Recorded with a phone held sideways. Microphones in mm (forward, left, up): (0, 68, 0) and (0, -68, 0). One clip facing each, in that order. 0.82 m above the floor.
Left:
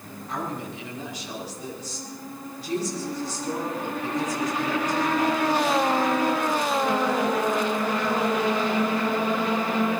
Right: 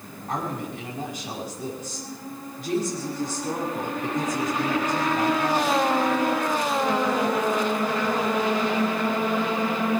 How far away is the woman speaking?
About 6 m.